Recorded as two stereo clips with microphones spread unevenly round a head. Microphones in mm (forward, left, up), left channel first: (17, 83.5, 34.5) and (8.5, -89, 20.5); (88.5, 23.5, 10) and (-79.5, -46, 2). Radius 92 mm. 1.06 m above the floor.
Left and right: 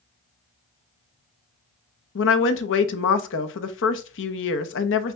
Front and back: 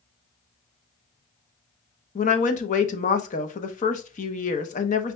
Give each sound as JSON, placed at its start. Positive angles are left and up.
{"t": 2.1, "sound": "a woman speaking", "azimuth_deg": 75, "distance_m": 0.8}